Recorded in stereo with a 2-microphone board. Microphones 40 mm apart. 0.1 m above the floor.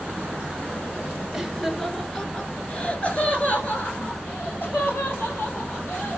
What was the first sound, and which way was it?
Laughter, centre (ahead or behind).